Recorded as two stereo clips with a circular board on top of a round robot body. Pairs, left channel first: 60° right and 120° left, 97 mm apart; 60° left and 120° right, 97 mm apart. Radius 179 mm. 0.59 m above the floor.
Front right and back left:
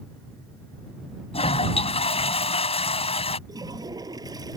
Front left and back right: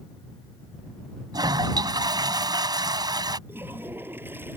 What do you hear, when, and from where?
1.3 s a toilet flushing: 70° right
3.5 s a toilet flushing: 170° left